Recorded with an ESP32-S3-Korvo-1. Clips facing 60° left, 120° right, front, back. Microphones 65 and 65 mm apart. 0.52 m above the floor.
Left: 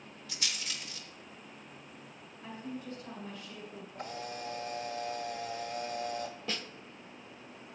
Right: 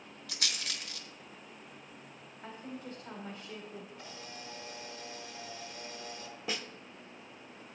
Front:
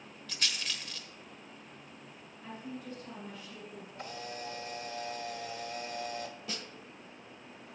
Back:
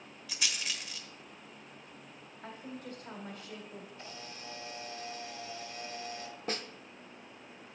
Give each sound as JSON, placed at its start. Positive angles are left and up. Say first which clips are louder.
{"t": 0.3, "sound": "a rattle", "louder": "right 1 dB, even", "azimuth_deg": -100, "distance_m": 1.0}
{"t": 2.4, "sound": "a woman speaking", "louder": "left 2 dB, front 1 dB", "azimuth_deg": -160, "distance_m": 1.6}
{"t": 4.0, "sound": "a camera shutter", "louder": "left 7 dB, front 6 dB", "azimuth_deg": 25, "distance_m": 1.1}
{"t": 6.5, "sound": "a snare drum", "louder": "right 1 dB, back 5 dB", "azimuth_deg": 170, "distance_m": 0.5}